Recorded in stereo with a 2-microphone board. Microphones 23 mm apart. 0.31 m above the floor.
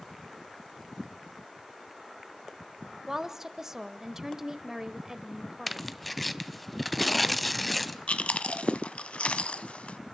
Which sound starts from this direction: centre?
Tearing paper, at 5.7 s.